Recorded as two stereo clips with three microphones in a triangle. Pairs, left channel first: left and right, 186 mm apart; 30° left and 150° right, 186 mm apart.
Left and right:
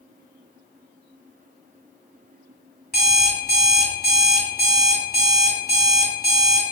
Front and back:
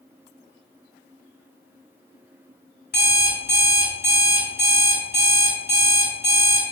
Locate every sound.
2.9 s an alarm clock: 55° left, 2.0 m